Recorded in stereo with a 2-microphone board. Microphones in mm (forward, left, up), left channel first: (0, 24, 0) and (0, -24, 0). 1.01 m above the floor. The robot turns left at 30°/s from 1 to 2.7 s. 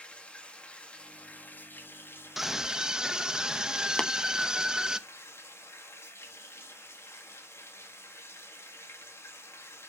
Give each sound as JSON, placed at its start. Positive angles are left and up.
{"t": 0.0, "sound": "running water", "azimuth_deg": 150, "distance_m": 1.7}
{"t": 2.4, "sound": "a scream", "side_deg": -5, "distance_m": 0.9}
{"t": 4.0, "sound": "tapping", "side_deg": 15, "distance_m": 0.6}